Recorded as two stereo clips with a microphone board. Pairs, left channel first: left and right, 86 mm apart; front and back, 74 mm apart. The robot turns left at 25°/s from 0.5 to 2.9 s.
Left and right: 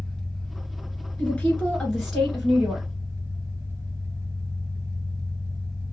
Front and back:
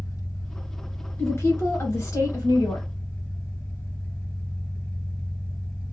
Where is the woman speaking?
25° left, 1.8 m; by 2.8 s 15° right, 1.8 m.